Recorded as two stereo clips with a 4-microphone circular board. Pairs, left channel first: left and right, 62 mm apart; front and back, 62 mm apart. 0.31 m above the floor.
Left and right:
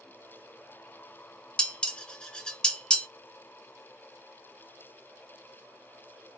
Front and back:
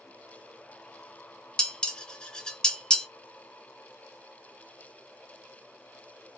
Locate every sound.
1.6 s dishes clattering: 45° left, 0.6 m